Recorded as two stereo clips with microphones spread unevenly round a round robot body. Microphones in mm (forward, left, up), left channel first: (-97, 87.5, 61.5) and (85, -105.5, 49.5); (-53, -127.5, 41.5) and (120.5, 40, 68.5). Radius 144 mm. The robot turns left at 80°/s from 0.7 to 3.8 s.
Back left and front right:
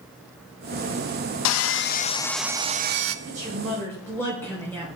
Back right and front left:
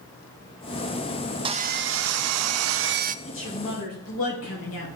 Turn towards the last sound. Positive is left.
turn(degrees=-145)